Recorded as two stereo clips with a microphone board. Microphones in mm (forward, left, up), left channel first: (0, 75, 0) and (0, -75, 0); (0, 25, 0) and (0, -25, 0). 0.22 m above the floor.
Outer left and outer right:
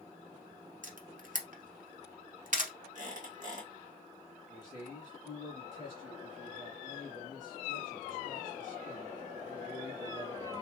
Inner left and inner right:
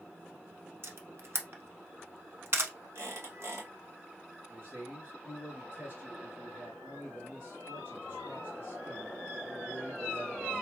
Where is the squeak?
60° right (ahead or behind), 2.0 m.